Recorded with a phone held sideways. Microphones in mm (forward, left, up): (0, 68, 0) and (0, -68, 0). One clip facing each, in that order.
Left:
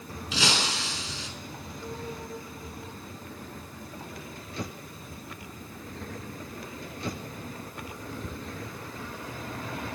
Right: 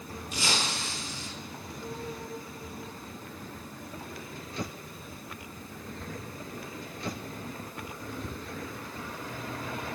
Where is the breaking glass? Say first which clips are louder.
Left 3 dB; 80° left, 4.5 m.